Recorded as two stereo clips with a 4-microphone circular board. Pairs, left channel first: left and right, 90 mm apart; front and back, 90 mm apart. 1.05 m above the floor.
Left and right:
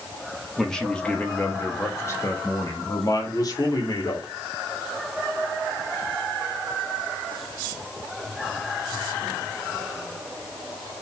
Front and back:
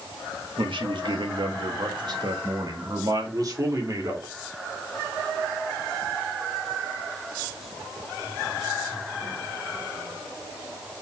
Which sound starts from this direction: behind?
A man speaking, at 0.6 s.